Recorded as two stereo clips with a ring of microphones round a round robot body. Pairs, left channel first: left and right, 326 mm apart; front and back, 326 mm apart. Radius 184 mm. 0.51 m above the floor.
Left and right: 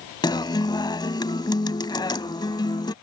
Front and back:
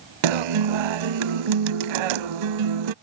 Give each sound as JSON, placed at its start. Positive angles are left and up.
{"t": 0.2, "sound": "a guitar", "azimuth_deg": 170}